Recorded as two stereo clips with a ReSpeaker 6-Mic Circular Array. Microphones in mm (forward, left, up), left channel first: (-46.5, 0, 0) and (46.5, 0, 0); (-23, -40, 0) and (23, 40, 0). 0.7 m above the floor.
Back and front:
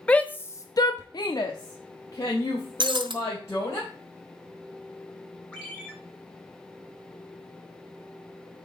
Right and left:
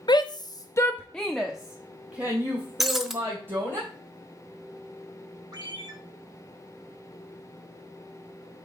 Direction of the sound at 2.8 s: 30° right.